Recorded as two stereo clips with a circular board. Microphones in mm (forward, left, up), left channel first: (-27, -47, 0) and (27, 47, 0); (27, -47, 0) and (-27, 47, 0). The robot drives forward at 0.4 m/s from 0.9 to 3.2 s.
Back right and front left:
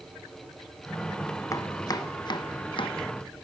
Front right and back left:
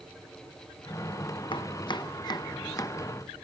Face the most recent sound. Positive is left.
turn(degrees=-115)